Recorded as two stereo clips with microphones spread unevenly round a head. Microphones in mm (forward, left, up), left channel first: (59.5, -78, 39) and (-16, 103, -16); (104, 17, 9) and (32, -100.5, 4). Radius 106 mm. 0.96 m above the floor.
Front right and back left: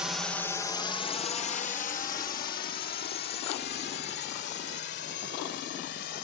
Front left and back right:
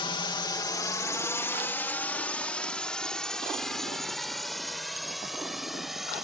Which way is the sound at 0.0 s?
55° left.